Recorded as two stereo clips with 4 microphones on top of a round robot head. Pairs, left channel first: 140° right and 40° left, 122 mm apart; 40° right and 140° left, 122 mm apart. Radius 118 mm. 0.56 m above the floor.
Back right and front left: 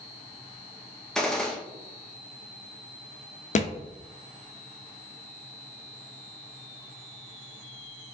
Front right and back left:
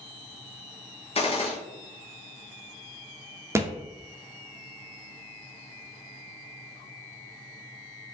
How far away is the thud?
About 0.6 m.